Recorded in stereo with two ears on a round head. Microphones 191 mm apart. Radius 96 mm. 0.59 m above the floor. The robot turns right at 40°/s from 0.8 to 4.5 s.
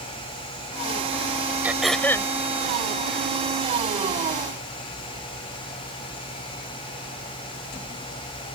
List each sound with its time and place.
1.6 s throat clearing: 10° right (ahead or behind); by 2.3 s 20° left (ahead or behind)